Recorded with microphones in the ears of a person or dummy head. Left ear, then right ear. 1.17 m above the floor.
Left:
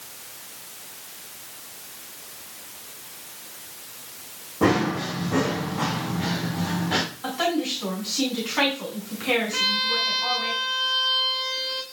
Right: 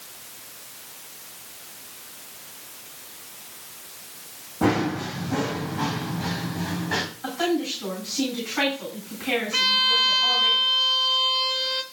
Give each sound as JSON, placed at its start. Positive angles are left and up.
{"t": 4.6, "sound": "running footsteps", "side_deg": 5, "distance_m": 4.5}
{"t": 7.2, "sound": "a woman speaking", "side_deg": 10, "distance_m": 9.5}
{"t": 9.5, "sound": "a violin", "side_deg": -25, "distance_m": 1.2}